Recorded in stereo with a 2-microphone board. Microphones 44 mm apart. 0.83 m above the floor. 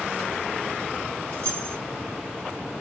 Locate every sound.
1.3 s keys jangling: 40° left (ahead or behind), 1.2 m